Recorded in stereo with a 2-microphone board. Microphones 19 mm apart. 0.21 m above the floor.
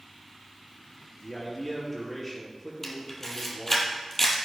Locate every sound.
1.2 s a man speaking: 15° left (ahead or behind), 5 m
2.8 s a camera shutter: 25° left (ahead or behind), 2.5 m